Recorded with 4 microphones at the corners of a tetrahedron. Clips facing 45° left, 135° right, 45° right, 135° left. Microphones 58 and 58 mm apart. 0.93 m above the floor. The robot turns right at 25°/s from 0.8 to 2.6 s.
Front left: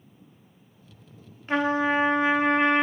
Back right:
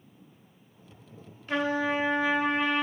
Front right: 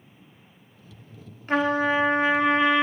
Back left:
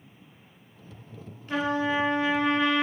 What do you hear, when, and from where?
1.5 s a trumpet: 5° right, 0.7 m; by 2.9 s 20° left, 0.7 m